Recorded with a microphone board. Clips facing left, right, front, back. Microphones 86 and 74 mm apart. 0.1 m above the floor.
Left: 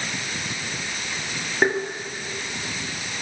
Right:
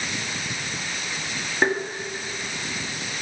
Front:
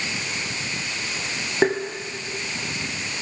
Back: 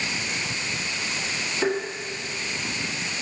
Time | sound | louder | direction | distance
1.6 | tapping | left 1 dB, front 4 dB | 5° left | 1.7 m